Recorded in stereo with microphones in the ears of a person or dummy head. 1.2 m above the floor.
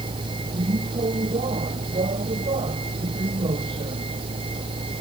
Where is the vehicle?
25° right (ahead or behind); by 5.0 s 30° right (ahead or behind).